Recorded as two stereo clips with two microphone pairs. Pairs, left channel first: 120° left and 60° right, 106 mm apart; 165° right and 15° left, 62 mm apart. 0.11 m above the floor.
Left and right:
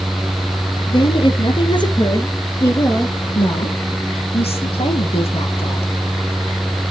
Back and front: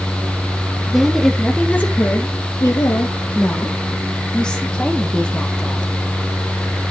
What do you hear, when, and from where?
0.9 s a woman speaking: 105° left, 2.5 m; by 3.2 s 170° right, 3 m
3.4 s a woman speaking: 120° left, 4.5 m